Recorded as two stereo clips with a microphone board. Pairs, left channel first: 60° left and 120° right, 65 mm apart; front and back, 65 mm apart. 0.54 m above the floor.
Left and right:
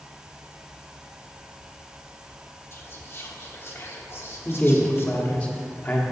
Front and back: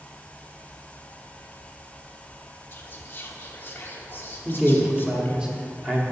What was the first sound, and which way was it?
Whispering, 35° left.